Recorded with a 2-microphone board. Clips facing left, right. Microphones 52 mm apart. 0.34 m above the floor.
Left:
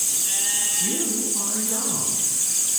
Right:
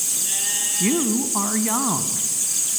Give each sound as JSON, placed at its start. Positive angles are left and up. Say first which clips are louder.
{"t": 0.8, "sound": "a woman speaking", "louder": "right 9 dB", "side_deg": -60, "distance_m": 2.5}